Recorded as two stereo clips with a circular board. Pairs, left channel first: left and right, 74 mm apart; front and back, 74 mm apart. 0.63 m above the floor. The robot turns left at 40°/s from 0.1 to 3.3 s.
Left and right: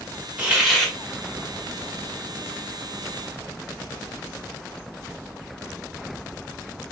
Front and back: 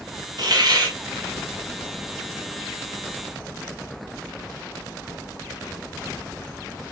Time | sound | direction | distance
0.4 | a hiss | 165° right | 0.9 m